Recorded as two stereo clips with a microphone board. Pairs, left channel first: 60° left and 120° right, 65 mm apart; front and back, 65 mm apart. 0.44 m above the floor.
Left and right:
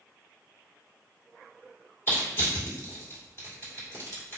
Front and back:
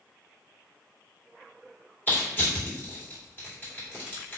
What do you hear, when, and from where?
2.1 s crushing: 35° left, 1.7 m